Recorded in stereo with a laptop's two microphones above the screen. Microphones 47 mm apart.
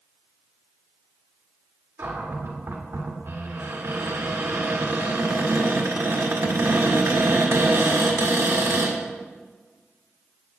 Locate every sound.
2.0 s a cupboard door: 60° right (ahead or behind), 1.4 m